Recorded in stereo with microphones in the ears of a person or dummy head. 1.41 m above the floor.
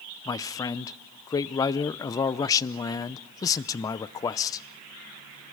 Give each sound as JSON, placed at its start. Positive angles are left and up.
{"t": 0.2, "sound": "a man speaking", "side_deg": 25, "distance_m": 0.6}